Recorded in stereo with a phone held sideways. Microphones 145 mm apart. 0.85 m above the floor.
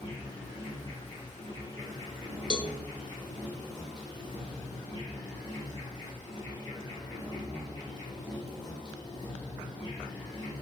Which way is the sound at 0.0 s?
35° left (ahead or behind).